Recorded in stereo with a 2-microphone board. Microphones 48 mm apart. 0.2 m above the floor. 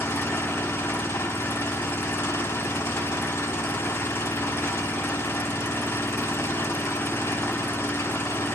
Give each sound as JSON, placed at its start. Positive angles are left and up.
{"t": 0.0, "sound": "an engine running", "side_deg": 60, "distance_m": 0.8}